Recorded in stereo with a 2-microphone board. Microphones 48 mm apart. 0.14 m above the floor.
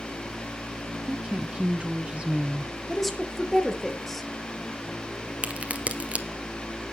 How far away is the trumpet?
No trumpet in this recording.